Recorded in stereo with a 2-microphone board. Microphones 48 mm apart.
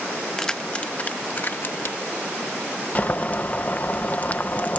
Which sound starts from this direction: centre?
Keys jangling, at 0.4 s.